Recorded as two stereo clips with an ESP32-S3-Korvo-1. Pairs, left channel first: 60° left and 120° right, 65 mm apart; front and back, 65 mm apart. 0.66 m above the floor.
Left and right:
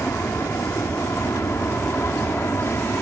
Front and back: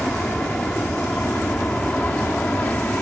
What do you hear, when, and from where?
0.0 s an aircraft: 70° left; by 3.0 s 50° left